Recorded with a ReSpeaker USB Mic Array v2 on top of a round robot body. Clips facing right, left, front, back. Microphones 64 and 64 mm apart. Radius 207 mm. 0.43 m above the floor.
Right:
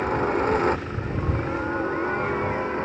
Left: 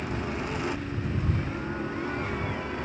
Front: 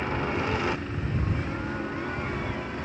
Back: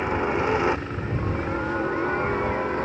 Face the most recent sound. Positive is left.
turn(degrees=-140)